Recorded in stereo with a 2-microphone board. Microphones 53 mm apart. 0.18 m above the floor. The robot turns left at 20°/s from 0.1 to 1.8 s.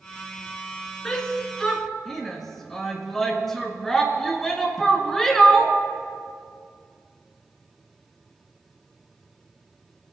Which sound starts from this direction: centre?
A shout, at 1.1 s.